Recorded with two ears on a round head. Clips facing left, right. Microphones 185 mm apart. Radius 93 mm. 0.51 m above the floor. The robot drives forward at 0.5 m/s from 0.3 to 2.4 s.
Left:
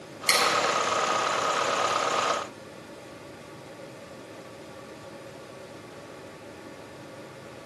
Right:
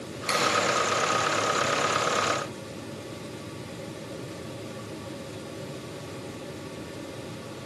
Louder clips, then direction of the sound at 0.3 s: Even; 40° left (ahead or behind).